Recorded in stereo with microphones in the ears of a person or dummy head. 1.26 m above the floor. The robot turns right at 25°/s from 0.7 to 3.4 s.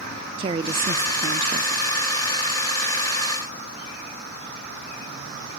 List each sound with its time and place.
0.4 s a woman speaking: 125° right, 0.5 m; by 1.9 s 95° right, 0.5 m